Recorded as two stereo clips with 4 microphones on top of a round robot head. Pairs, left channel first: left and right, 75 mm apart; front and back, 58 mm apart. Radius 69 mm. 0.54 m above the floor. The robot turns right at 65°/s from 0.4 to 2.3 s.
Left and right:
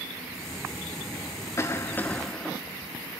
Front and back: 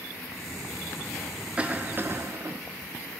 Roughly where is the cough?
Behind left.